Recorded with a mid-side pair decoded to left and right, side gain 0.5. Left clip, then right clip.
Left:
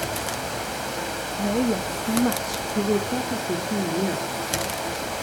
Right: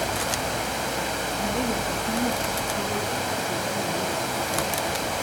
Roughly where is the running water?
Ahead.